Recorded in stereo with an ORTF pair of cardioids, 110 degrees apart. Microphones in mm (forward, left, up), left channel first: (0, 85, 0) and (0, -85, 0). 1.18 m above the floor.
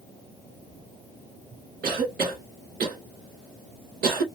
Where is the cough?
70° right, 1.7 m.